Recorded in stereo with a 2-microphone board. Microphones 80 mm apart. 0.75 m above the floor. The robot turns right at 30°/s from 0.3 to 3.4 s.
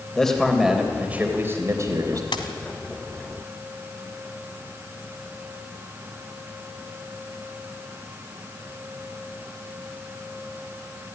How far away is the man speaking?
About 3 m.